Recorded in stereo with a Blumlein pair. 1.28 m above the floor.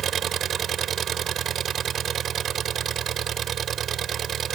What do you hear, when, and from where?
0.0 s an engine running: 25° right